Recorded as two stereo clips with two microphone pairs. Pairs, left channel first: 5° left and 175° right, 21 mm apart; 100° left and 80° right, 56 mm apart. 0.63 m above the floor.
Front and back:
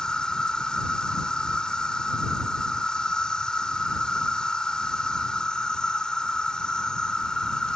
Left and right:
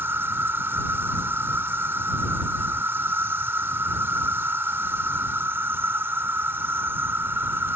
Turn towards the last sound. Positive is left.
turn(degrees=-40)